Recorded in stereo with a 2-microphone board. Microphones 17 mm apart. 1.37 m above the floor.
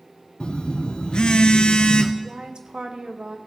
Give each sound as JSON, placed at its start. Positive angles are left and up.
{"t": 0.4, "sound": "a phone buzzing", "side_deg": 75, "distance_m": 0.7}
{"t": 2.2, "sound": "a woman speaking", "side_deg": -70, "distance_m": 1.1}